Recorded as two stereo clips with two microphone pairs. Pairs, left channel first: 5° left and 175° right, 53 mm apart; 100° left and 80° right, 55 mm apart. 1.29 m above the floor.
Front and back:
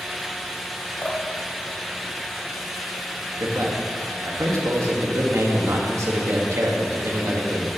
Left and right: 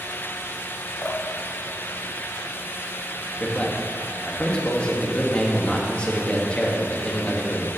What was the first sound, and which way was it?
Dripping, 60° left.